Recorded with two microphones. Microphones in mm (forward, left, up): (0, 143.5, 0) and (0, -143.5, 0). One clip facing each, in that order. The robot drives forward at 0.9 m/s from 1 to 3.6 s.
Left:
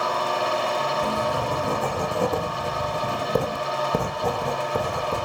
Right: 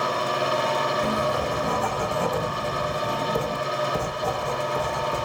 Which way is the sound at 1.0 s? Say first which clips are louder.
Right 1 dB; 40° left (ahead or behind).